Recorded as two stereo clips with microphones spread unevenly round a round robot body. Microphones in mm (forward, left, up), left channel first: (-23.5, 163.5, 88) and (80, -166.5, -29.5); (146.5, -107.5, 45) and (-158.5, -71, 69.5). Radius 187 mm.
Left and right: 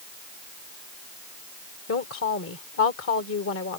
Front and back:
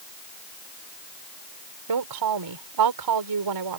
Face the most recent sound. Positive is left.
turn(degrees=165)